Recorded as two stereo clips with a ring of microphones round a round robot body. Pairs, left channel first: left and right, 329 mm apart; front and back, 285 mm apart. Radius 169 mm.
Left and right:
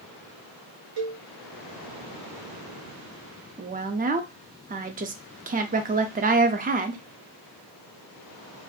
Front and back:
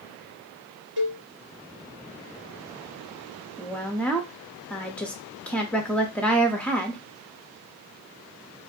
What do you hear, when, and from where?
1.0 s a cowbell: 135° right, 2.5 m
3.6 s a woman speaking: 80° right, 0.6 m